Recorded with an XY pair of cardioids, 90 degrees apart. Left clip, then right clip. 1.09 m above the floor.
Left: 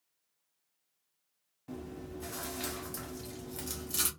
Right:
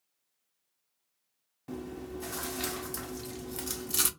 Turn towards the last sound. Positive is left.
turn(degrees=-35)